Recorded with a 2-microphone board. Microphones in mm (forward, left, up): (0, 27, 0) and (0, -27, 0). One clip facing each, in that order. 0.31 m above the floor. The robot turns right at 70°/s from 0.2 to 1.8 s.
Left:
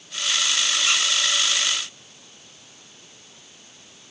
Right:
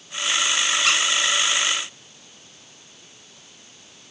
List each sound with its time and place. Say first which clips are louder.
0.8 s a squeak: right 3 dB; 80° right, 1.2 m; by 1.0 s 85° right, 1.2 m